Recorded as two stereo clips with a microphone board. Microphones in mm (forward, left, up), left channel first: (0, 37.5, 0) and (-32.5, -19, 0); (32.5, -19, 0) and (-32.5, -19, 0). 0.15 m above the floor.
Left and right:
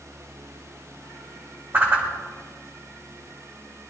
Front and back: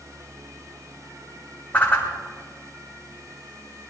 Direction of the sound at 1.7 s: 65° right.